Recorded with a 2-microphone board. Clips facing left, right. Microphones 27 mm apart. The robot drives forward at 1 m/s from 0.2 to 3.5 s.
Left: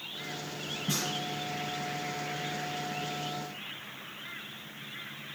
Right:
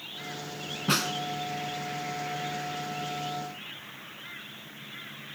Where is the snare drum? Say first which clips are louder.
Right 7 dB; 70° right (ahead or behind), 1.0 m; by 1.1 s 80° right, 1.0 m.